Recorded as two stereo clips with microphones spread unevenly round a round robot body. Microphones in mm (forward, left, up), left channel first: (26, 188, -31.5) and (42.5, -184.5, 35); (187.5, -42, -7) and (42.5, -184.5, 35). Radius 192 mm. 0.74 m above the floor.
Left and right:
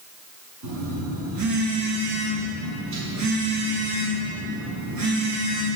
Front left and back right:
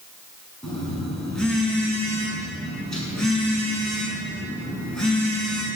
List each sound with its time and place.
0.6 s a phone buzzing: 45° right, 7 m